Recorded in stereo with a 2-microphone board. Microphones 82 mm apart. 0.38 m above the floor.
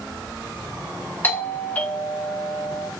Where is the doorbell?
20° left (ahead or behind), 1.3 m.